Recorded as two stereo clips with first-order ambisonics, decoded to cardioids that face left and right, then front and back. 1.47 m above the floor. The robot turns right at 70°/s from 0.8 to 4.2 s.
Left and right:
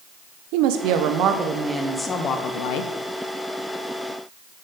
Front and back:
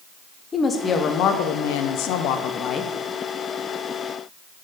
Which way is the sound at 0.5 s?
70° right.